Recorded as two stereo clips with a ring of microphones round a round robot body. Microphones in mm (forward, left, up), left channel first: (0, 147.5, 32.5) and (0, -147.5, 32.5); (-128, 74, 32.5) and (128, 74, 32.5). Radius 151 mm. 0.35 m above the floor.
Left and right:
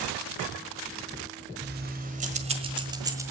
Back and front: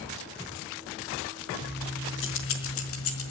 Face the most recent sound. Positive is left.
turn(degrees=-170)